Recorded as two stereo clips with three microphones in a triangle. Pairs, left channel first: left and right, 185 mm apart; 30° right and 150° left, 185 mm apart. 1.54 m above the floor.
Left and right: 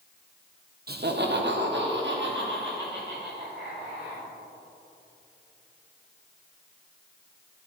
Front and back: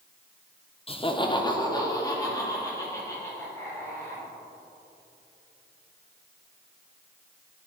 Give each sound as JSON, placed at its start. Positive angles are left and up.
{"t": 0.9, "sound": "laughter", "azimuth_deg": -85, "distance_m": 0.6}